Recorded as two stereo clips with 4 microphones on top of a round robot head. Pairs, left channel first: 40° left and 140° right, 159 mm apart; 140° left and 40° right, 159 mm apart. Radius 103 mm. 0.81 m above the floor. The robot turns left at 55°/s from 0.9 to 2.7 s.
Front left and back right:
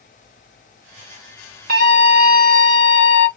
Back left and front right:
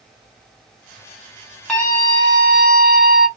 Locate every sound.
1.7 s a scream: 130° right, 1.4 m; by 3.3 s 175° left, 1.4 m